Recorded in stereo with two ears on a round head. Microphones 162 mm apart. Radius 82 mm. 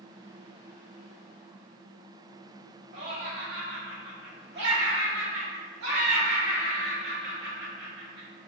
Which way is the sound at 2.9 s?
70° right (ahead or behind).